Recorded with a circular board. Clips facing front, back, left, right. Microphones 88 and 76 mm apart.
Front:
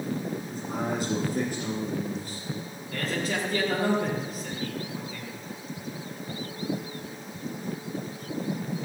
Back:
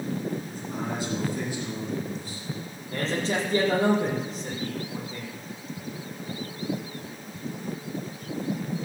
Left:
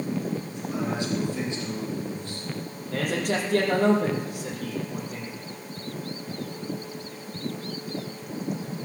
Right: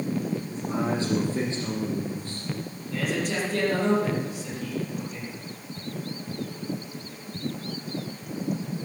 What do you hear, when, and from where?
0.5 s a man speaking: 40° right, 7 m
2.9 s a man speaking: 120° left, 7 m